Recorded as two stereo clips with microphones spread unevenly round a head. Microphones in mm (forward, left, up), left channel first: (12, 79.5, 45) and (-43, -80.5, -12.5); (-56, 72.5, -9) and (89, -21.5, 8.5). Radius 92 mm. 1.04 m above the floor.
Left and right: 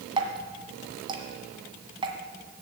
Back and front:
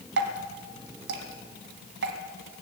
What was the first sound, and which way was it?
Dripping, 35° right.